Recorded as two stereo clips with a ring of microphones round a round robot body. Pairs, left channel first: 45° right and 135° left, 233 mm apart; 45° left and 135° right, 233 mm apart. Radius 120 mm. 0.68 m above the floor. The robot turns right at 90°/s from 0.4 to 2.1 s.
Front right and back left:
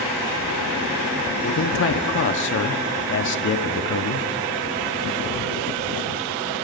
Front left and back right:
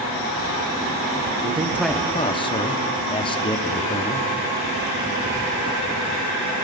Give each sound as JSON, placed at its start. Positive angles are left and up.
{"t": 1.4, "sound": "a man speaking", "azimuth_deg": -80, "distance_m": 1.0}